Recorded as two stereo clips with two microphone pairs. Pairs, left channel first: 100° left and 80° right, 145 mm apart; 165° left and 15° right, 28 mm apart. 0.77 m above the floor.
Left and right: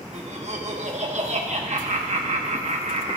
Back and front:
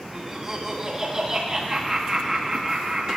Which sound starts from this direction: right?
Laughter, at 0.1 s.